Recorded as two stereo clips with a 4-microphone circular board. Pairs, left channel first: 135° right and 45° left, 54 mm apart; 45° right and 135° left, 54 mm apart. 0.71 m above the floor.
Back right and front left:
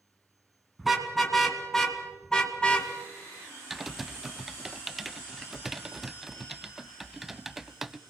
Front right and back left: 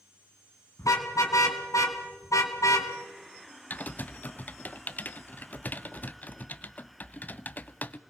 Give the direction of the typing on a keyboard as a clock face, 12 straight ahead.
1 o'clock.